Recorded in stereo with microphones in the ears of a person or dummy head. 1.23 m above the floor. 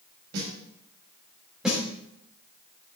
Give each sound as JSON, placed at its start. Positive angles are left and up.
{"t": 0.3, "sound": "a snare drum", "side_deg": -65, "distance_m": 5.5}
{"t": 1.6, "sound": "a snare drum", "side_deg": 0, "distance_m": 3.0}